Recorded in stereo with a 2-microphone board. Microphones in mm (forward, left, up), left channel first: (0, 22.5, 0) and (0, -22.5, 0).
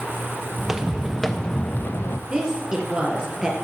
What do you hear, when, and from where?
0.6 s footsteps: 15° right (ahead or behind), 1.0 m; by 2.2 s 60° left (ahead or behind), 0.6 m
2.3 s a woman speaking: 20° right (ahead or behind), 3 m